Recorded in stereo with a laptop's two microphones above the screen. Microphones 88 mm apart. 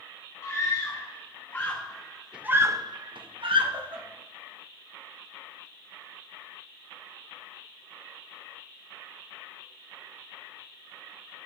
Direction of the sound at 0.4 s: 30° left (ahead or behind).